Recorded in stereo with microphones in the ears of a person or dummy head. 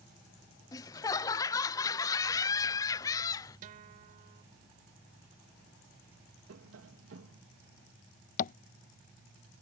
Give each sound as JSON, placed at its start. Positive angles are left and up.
{"t": 0.7, "sound": "laughter", "side_deg": 20}
{"t": 3.6, "sound": "a guitar", "side_deg": -50}
{"t": 6.5, "sound": "tapping", "side_deg": -80}
{"t": 8.4, "sound": "tapping", "side_deg": 50}